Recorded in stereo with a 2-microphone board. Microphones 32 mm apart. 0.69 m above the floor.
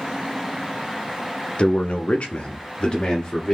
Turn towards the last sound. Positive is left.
turn(degrees=25)  # may be behind; listen again after turning